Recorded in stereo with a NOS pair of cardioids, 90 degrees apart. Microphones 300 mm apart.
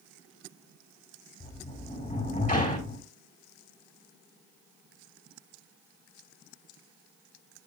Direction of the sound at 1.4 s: 25° left.